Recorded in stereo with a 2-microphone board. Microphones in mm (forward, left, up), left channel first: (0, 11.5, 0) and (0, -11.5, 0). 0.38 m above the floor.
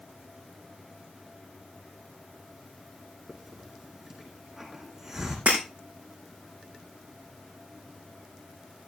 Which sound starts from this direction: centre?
A hiss, at 3.3 s.